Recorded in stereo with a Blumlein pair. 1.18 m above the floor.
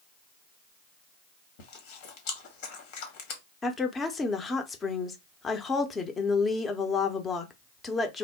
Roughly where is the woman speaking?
Ahead.